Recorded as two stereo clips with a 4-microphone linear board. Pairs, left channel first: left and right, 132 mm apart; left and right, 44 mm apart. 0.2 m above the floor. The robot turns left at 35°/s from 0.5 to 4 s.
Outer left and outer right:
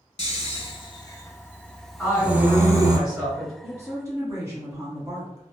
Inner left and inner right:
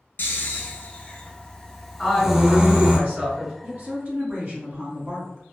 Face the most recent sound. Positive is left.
turn(degrees=-30)  # may be behind; listen again after turning